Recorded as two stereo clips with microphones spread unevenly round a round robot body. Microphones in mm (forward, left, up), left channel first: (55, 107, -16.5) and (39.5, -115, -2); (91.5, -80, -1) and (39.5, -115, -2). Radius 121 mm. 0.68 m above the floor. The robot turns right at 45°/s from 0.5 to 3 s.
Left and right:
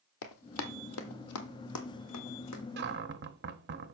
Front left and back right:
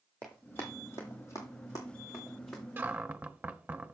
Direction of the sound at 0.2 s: 115° left.